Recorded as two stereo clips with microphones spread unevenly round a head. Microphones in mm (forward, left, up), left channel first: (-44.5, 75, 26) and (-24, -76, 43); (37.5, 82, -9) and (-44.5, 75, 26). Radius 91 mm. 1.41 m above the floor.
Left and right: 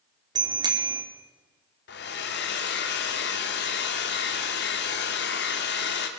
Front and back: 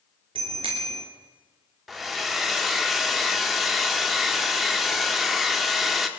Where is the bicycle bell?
145° right, 2.5 m.